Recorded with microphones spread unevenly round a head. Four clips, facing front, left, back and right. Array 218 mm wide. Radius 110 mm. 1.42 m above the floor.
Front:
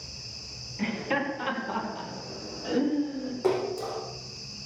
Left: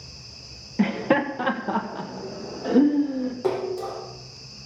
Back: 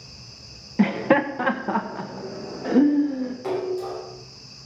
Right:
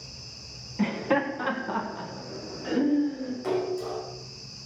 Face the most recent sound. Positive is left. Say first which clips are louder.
# even, front 1 dB
turn(degrees=55)